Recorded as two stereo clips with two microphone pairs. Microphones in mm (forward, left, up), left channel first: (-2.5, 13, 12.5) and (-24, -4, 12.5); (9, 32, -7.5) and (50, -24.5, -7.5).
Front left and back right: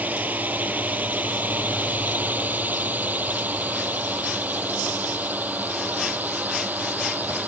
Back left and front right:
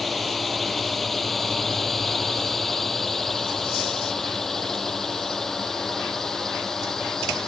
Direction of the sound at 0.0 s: 145° right.